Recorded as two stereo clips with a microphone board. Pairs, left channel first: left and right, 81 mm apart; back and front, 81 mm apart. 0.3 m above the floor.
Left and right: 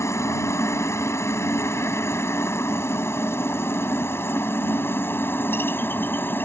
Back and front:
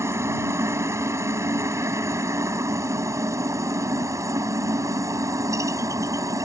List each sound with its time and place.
0.0 s a helicopter: 45° left; by 6.5 s 35° left